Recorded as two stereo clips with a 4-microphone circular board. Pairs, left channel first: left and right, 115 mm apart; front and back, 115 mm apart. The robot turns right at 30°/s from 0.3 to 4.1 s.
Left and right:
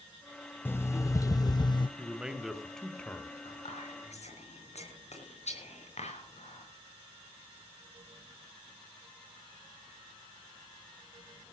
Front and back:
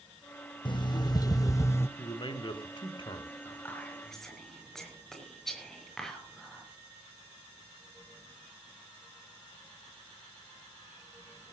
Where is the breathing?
I don't hear breathing.